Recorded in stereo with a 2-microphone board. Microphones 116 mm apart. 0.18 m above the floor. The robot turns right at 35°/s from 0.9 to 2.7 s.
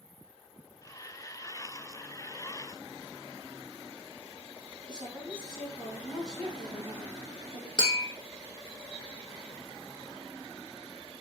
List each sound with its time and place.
4.9 s a woman speaking: 30° right (ahead or behind), 1.3 m
7.8 s tapping: 50° left (ahead or behind), 0.9 m